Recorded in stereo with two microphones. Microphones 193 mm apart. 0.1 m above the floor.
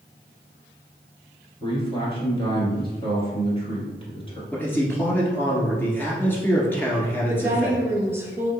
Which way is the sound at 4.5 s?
10° left (ahead or behind).